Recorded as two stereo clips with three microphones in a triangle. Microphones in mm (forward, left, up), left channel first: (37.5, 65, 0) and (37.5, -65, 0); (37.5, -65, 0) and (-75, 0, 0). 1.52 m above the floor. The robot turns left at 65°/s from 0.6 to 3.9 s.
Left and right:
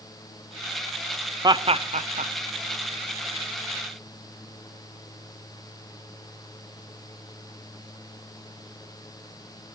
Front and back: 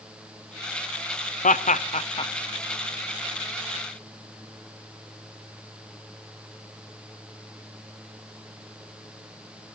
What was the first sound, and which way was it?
Laughter, 30° right.